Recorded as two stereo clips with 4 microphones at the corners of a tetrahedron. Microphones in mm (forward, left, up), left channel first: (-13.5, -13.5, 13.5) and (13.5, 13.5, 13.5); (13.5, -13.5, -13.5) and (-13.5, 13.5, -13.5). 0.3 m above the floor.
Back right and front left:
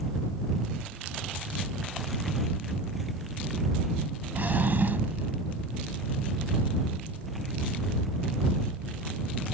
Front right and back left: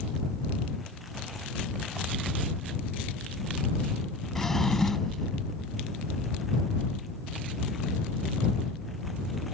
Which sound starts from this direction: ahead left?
A drawer, at 4.3 s.